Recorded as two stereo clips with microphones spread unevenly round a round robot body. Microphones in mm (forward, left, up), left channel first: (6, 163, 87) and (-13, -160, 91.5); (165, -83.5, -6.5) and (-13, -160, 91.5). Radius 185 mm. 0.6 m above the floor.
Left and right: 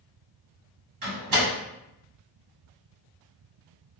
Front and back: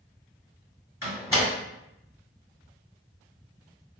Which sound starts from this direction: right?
A door slam, at 1.0 s.